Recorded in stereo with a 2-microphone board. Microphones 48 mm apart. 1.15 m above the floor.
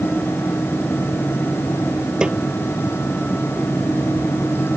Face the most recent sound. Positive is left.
turn(degrees=-15)  # may be behind; listen again after turning